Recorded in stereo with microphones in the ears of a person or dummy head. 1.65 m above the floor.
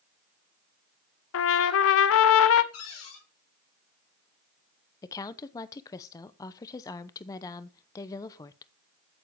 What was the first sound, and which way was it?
A trumpet, 75° left (ahead or behind).